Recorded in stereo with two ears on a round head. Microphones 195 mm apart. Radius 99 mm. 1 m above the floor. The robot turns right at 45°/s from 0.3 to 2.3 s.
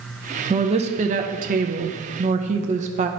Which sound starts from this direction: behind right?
A woman speaking, at 0.5 s.